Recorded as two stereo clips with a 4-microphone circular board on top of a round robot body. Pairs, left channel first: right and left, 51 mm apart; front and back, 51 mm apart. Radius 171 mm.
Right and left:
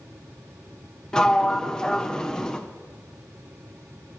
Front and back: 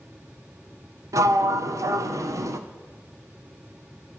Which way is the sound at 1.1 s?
165° right.